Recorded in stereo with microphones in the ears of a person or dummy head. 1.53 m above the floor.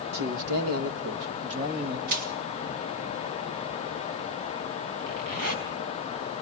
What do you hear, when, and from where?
0.1 s a man speaking: 55° right (ahead or behind), 1.4 m
2.1 s crushing: 50° right (ahead or behind), 1.6 m
5.0 s a zipper: 70° right (ahead or behind), 3.5 m